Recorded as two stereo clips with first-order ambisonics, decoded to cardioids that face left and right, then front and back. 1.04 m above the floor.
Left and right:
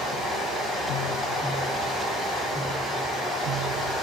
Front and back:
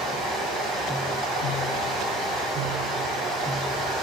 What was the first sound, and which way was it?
Running water, straight behind.